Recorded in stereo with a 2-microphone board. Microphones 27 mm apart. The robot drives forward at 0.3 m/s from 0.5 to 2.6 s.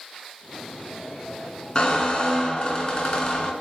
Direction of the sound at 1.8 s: 30° left (ahead or behind).